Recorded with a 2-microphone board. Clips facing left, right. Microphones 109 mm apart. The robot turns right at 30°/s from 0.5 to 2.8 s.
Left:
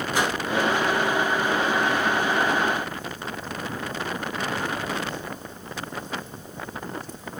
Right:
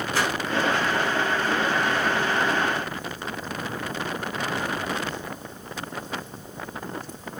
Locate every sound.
0.1 s a whoosh: 20° left (ahead or behind), 1.2 m